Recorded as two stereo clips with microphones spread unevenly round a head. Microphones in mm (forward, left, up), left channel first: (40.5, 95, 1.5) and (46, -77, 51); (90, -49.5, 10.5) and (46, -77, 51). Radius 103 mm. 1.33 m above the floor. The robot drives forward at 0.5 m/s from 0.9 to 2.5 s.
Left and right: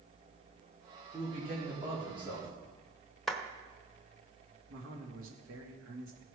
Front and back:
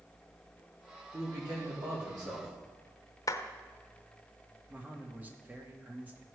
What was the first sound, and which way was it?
A man speaking, 155° right.